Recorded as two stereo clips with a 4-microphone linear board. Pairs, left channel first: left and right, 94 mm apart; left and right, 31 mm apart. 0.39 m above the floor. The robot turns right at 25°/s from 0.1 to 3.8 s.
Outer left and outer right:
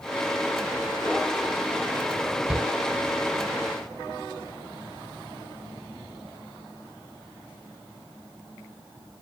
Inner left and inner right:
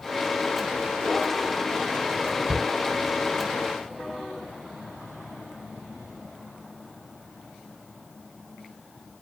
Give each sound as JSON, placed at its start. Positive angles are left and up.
{"t": 2.5, "sound": "a shout", "side_deg": -10, "distance_m": 1.1}